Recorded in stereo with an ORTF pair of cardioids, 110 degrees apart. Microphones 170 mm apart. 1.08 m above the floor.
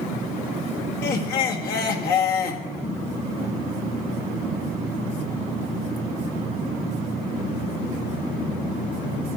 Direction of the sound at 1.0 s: 65° left.